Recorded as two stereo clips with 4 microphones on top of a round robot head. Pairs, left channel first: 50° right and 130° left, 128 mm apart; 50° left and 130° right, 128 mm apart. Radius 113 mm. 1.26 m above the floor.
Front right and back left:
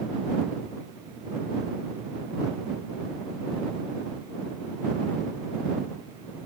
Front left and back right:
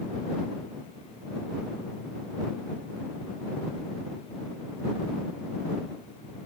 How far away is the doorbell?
I don't hear a doorbell.